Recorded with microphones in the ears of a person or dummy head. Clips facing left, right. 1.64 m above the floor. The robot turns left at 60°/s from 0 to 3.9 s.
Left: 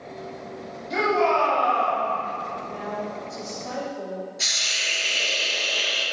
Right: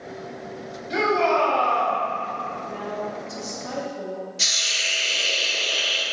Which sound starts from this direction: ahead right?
A woman speaking, at 2.7 s.